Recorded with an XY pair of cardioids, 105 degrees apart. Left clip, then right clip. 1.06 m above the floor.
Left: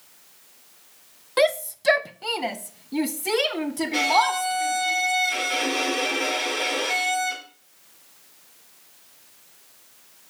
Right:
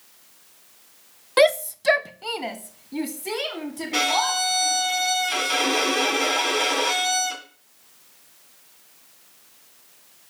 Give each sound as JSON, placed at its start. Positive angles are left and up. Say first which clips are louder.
{"t": 1.4, "sound": "a shout", "louder": "right 3 dB", "azimuth_deg": -30, "distance_m": 0.6}
{"t": 3.9, "sound": "a violin", "louder": "left 1 dB", "azimuth_deg": -45, "distance_m": 3.5}